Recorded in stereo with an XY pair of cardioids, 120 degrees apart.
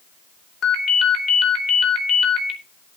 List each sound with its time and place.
0.6 s a ringtone: 65° left, 3 m